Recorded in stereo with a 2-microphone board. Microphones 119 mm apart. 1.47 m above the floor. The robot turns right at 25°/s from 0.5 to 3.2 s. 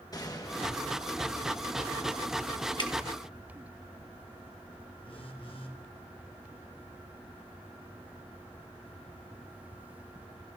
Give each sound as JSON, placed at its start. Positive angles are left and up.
{"t": 0.1, "sound": "a gunshot", "azimuth_deg": 150, "distance_m": 1.2}
{"t": 2.8, "sound": "dripping", "side_deg": 40, "distance_m": 1.0}
{"t": 5.0, "sound": "a phone buzzing", "side_deg": 45, "distance_m": 1.3}